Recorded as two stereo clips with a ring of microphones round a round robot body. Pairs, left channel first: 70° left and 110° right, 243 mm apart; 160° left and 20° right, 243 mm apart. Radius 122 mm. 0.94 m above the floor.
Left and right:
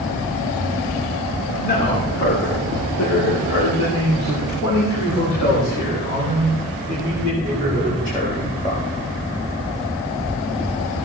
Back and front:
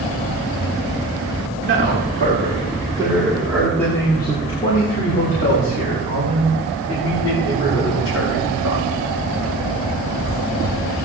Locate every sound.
1.6 s a man speaking: 15° left, 3.5 m; by 8.8 s 125° left, 8.5 m